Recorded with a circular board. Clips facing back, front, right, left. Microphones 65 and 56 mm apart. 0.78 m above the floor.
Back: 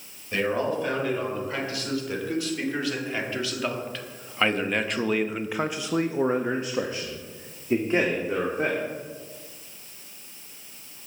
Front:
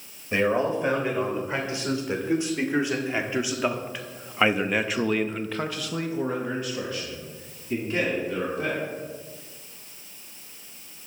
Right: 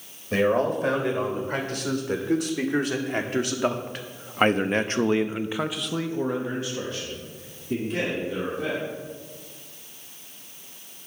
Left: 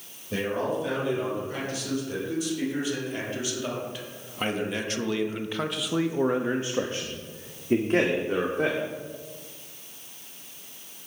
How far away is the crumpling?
No crumpling in this recording.